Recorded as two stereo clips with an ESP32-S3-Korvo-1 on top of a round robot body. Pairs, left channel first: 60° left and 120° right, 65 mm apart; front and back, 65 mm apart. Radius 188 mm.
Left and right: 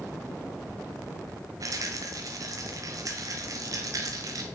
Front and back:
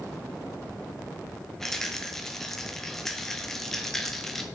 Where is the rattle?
85° right, 0.9 m.